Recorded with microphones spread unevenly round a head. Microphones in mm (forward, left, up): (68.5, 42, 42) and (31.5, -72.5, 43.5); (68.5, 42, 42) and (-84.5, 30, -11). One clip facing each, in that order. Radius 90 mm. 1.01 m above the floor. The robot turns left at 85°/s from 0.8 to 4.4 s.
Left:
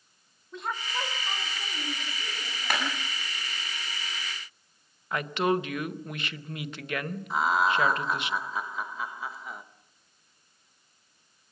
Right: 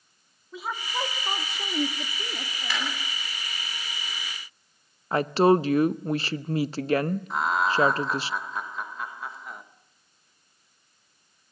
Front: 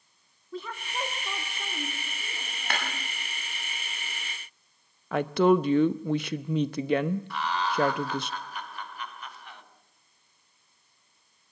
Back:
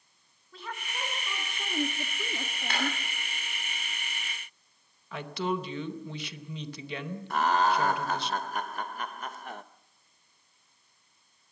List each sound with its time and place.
0.5 s a woman speaking: 20° right, 2.0 m; by 3.0 s 155° left, 2.0 m
2.7 s a clap: 35° left, 8.5 m; by 2.8 s 25° left, 8.5 m
5.1 s a woman speaking: 50° right, 0.8 m
7.3 s laughter: 160° left, 1.1 m